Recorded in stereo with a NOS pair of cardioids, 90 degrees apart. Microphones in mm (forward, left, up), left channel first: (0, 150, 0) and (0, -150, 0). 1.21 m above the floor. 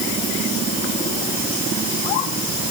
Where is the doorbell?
No doorbell in this recording.